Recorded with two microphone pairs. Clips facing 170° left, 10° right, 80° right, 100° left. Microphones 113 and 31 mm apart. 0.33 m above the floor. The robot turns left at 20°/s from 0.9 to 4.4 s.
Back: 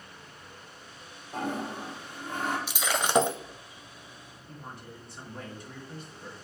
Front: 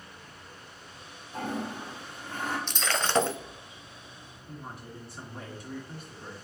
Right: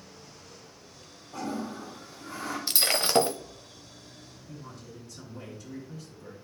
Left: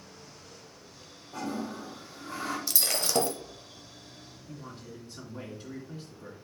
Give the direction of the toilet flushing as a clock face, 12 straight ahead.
6 o'clock.